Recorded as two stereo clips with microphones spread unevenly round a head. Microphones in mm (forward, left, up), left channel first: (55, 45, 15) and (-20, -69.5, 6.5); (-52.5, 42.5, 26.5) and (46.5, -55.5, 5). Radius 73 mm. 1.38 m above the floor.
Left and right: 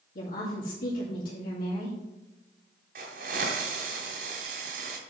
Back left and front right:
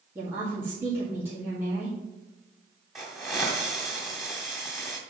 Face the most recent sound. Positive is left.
turn(degrees=-140)